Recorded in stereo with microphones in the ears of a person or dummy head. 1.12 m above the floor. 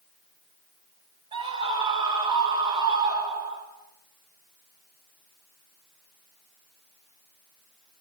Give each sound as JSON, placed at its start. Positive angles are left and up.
{"t": 1.3, "sound": "a scream", "side_deg": -20, "distance_m": 6.5}